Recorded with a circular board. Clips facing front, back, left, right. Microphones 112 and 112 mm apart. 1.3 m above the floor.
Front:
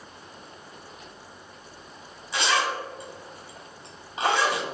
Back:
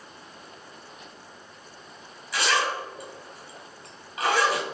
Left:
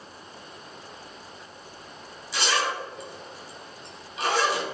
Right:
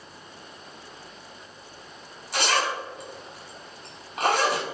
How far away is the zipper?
About 2.5 m.